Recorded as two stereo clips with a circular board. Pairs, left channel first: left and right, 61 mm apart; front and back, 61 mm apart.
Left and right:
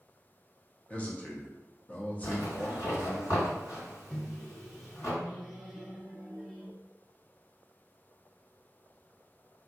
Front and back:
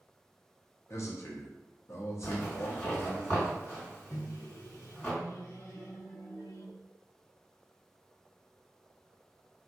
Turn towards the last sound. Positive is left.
turn(degrees=5)